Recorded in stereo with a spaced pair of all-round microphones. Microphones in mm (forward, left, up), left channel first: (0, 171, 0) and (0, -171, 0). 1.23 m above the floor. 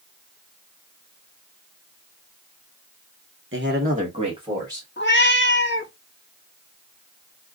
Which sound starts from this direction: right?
A man speaking, at 3.5 s.